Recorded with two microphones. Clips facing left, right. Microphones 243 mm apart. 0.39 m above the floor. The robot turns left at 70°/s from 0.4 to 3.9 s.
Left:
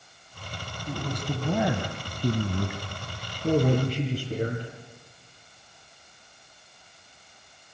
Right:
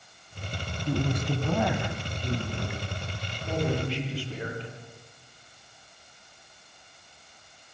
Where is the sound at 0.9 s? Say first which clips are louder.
Right 4 dB; 150° right, 2.5 m; by 2.8 s 75° left, 2.5 m.